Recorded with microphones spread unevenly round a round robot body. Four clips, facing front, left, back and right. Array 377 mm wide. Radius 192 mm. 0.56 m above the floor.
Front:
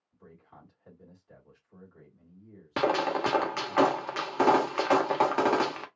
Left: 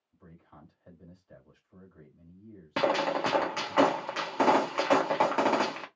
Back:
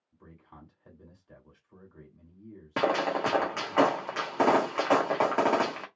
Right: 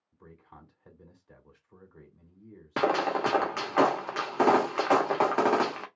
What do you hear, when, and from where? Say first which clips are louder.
0.1 s a man speaking: right 2 dB, back 1 dB; 130° right, 2 m
2.8 s a gunshot: right 1 dB, even; 100° right, 1.3 m